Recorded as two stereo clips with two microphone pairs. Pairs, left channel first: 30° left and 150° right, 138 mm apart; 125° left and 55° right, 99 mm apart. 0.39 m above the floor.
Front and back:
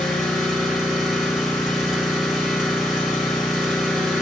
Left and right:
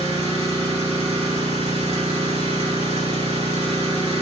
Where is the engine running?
65° right, 4.5 m.